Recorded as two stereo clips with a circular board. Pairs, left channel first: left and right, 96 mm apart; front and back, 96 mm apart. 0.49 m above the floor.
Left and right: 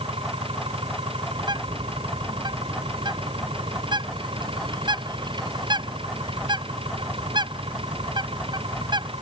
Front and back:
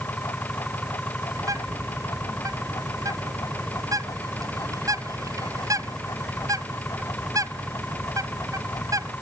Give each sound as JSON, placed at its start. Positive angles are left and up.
{"t": 0.0, "sound": "an engine running", "azimuth_deg": -75}
{"t": 1.4, "sound": "a bird", "azimuth_deg": -125}